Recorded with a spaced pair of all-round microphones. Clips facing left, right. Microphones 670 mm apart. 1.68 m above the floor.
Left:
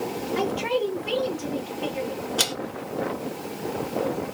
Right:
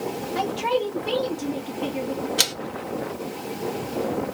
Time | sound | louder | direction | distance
0.3 | a man speaking | even | 65° right (ahead or behind) | 1.7 m
2.4 | a man speaking | left 1 dB | 50° right (ahead or behind) | 1.0 m